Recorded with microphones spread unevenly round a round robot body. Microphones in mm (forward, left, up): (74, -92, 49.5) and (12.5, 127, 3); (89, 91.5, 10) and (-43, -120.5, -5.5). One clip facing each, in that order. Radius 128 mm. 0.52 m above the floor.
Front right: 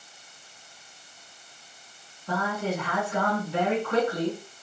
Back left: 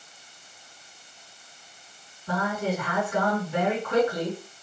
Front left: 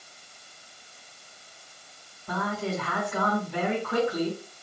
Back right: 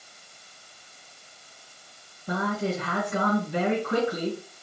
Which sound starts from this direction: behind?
A man speaking, at 2.3 s.